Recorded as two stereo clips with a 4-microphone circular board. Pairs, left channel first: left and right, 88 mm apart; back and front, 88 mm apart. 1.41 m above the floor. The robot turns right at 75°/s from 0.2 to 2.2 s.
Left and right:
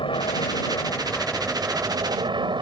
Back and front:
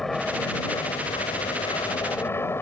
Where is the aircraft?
95° left; by 2.6 s 115° right.